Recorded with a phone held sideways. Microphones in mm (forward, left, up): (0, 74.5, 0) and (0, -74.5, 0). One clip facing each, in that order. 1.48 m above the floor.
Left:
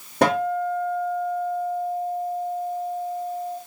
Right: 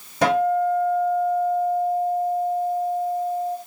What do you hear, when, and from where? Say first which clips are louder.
0.2 s a guitar: right 2 dB; 60° left (ahead or behind), 2.5 m